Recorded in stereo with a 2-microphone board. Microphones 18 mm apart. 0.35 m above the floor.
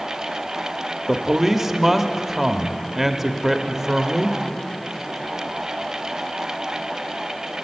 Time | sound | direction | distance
1.1 | a man speaking | 20° right (ahead or behind) | 0.8 m